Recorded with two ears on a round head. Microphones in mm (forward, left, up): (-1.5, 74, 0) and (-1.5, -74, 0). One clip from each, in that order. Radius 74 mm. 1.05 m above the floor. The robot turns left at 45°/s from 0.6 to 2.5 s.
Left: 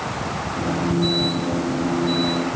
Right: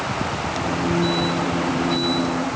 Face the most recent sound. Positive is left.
No sound to turn to.